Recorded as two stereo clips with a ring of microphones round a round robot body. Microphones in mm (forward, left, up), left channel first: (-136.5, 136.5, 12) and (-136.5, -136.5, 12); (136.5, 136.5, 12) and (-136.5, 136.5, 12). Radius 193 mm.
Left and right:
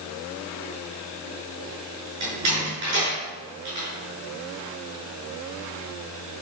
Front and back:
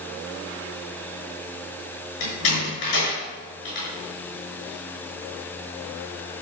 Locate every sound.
2.2 s a door slam: 35° right, 5.5 m